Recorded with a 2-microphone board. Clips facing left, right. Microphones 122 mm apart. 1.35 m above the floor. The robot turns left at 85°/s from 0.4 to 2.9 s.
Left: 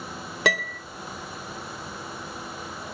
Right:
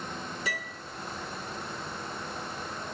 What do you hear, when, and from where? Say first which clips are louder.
0.5 s a piano: left 11 dB; 75° left (ahead or behind), 0.8 m; by 0.8 s 65° left (ahead or behind), 0.8 m